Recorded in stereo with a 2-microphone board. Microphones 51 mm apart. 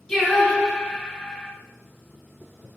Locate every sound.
0.1 s singing: 10° left (ahead or behind), 1.1 m